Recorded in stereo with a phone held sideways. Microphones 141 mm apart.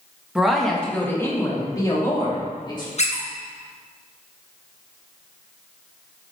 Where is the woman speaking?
5° right (ahead or behind), 1.5 m; by 2.9 s 35° left (ahead or behind), 3.5 m.